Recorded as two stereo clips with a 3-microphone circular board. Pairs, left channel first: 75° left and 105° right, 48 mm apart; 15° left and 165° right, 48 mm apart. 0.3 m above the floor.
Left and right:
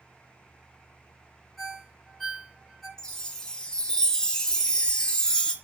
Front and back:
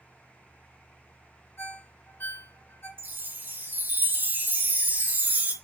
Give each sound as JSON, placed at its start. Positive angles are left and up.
{"t": 1.6, "sound": "a ringtone", "azimuth_deg": -10, "distance_m": 2.5}
{"t": 3.0, "sound": "a chime", "azimuth_deg": 150, "distance_m": 1.1}